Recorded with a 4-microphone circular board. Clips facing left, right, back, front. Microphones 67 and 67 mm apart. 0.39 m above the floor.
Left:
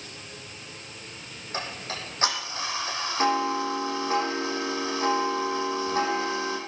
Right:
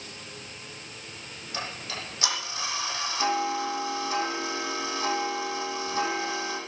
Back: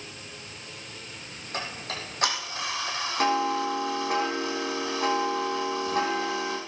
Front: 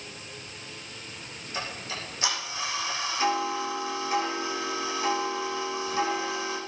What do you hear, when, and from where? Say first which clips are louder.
1.5 s ticking: left 2 dB, back 1 dB; 145° left, 7.5 m